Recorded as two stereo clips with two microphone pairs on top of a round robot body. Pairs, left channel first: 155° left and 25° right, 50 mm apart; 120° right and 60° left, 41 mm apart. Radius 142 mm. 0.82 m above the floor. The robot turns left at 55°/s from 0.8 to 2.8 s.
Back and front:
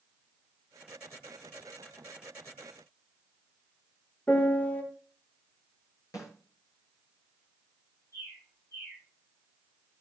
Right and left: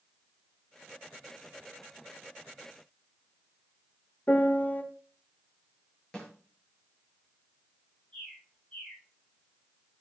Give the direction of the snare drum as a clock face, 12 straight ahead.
6 o'clock.